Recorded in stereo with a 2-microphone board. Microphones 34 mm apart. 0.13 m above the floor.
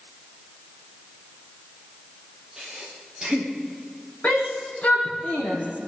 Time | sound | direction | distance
2.6 | breathing | 15° right (ahead or behind) | 8.5 m
4.2 | a shout | 45° left (ahead or behind) | 8 m